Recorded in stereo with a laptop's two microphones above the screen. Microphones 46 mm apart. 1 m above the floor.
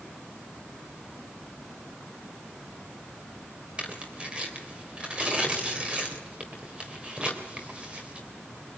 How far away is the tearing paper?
About 3.5 m.